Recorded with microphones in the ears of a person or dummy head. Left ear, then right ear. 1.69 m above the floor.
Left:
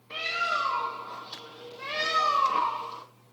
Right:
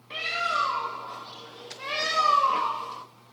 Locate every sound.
0.1 s a bird: 10° right (ahead or behind), 1.7 m